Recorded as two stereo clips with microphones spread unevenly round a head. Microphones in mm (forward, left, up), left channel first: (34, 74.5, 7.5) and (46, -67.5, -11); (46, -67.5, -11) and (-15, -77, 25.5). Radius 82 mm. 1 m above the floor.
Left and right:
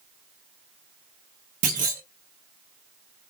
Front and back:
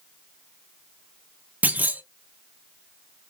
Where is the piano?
No piano in this recording.